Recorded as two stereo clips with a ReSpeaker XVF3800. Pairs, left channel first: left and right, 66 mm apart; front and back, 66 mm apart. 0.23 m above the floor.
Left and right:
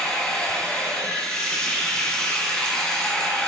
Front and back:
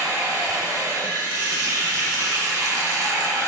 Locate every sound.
0.0 s running water: 165° left, 1.8 m